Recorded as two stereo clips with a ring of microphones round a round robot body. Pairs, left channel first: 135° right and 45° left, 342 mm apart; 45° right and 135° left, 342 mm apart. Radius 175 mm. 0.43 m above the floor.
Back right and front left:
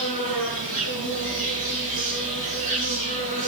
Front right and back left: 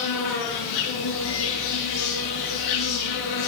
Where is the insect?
25° right, 6.5 m.